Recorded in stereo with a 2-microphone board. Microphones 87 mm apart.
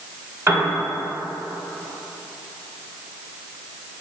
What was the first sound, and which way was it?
A piano, 35° right (ahead or behind).